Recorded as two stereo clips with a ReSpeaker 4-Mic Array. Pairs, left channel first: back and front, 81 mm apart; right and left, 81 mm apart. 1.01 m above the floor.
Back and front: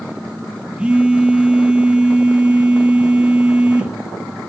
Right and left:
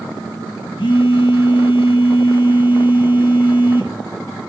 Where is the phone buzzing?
80° right, 1.1 m.